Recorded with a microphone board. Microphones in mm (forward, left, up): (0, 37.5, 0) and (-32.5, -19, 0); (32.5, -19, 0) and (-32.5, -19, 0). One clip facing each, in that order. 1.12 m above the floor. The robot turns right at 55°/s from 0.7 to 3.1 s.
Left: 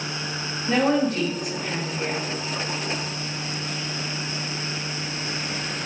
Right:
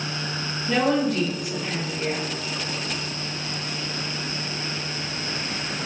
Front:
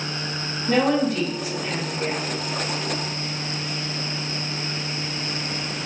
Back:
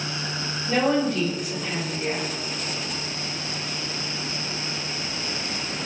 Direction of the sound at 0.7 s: 5° left.